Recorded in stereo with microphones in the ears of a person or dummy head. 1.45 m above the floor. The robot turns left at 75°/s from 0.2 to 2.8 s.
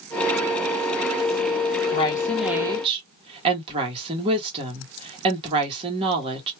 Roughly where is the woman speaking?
Ahead left.